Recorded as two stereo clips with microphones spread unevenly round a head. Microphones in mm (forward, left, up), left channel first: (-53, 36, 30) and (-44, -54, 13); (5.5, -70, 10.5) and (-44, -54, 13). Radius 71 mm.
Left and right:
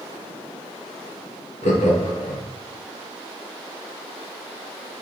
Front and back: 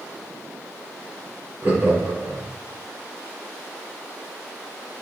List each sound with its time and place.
1.6 s laughter: 85° left, 3 m